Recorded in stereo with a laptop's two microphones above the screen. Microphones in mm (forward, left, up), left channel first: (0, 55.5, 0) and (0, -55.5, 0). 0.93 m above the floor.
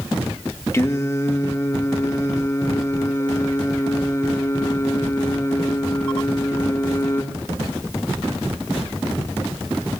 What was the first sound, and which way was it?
Singing, 25° left (ahead or behind).